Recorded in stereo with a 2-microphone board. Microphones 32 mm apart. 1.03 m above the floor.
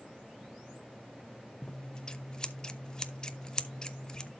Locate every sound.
1.6 s scissors: 20° left (ahead or behind), 0.7 m